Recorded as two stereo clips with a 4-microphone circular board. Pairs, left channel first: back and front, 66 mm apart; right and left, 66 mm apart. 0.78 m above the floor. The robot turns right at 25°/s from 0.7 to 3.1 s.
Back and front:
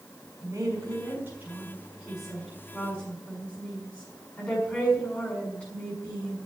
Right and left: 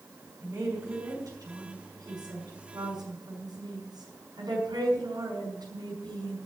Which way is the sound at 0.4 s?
45° left.